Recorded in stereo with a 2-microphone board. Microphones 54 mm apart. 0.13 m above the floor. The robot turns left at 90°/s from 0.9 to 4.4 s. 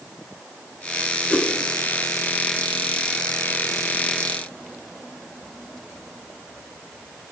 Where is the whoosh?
25° left (ahead or behind), 1.3 m; by 1.5 s 15° left (ahead or behind), 1.3 m.